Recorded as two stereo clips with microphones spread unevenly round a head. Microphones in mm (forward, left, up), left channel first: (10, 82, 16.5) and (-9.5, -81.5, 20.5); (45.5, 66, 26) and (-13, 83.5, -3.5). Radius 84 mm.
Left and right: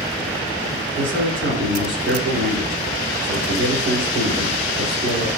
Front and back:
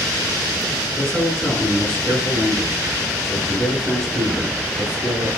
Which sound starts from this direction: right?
A man speaking, at 0.9 s.